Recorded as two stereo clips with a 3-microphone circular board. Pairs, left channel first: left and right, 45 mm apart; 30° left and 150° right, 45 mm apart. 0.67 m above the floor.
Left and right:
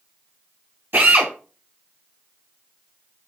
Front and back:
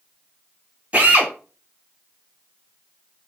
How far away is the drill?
About 1.5 m.